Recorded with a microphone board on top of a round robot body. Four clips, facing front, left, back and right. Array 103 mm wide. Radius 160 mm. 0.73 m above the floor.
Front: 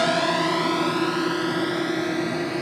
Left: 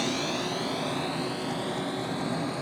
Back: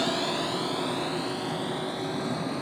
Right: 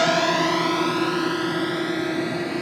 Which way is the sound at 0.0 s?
60° right.